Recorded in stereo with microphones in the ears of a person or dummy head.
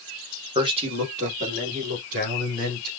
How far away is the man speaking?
About 1.1 m.